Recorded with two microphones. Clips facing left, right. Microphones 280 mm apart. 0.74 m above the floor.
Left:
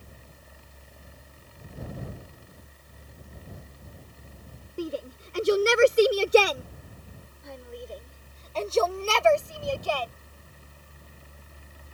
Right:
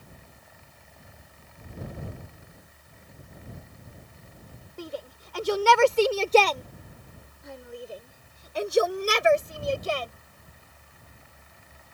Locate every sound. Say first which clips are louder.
4.8 s a shout: left 5 dB; 35° left (ahead or behind); by 10.1 s 25° right (ahead or behind)